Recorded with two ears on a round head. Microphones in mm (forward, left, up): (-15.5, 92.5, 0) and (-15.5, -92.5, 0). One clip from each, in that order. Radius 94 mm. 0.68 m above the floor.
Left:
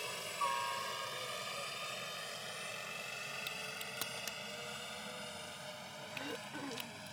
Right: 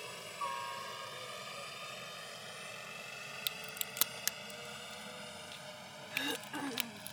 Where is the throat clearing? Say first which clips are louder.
Right 7 dB; 75° right (ahead or behind).